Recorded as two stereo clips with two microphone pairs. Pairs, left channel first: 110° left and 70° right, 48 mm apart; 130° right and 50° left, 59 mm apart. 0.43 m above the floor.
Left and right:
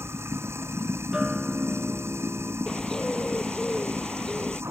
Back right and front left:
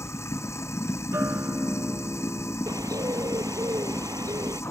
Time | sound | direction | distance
0.0 | running water | 90° right | ?
1.1 | a guitar | 10° left | ?
2.7 | a bird | 40° left | ?